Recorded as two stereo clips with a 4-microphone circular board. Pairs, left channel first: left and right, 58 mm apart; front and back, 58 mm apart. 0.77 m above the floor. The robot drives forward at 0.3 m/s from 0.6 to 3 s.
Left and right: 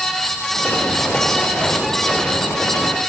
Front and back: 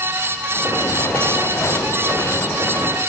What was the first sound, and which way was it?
Only background noise.